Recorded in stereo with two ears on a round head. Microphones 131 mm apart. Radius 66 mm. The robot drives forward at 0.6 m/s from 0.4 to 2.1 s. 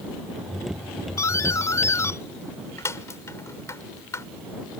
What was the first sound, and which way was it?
A doorbell, 20° left (ahead or behind).